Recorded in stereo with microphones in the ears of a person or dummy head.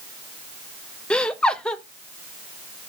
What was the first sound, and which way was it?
Laughter, 5° left (ahead or behind).